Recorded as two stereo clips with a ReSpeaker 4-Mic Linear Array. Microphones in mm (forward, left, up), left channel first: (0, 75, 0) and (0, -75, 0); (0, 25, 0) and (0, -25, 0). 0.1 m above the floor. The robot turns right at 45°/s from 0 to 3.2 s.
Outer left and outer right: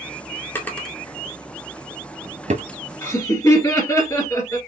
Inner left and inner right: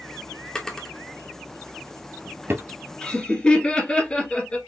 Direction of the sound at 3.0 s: 20° left (ahead or behind).